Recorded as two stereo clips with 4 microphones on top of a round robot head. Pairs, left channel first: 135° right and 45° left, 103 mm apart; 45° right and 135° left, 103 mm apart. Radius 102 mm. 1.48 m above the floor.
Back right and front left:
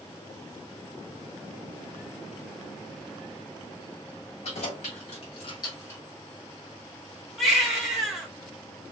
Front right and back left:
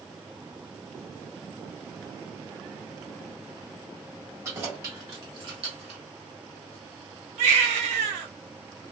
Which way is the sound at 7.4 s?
130° left.